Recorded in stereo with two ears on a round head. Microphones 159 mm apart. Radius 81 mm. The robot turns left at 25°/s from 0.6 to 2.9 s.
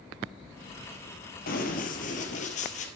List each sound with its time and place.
1.5 s running footsteps: 55° left (ahead or behind), 1.9 m; by 2.9 s 45° left (ahead or behind), 2.0 m